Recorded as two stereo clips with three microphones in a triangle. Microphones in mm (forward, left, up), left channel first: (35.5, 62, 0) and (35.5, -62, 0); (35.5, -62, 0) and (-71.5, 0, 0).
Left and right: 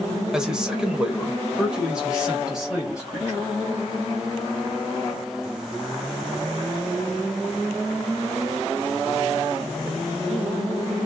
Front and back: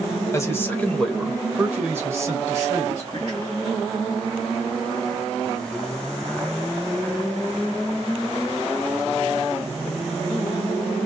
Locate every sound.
0.3 s a man speaking: 15° right, 1.0 m; by 3.5 s 175° right, 1.5 m